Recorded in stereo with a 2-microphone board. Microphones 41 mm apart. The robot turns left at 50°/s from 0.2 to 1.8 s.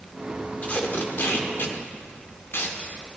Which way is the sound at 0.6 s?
35° left (ahead or behind).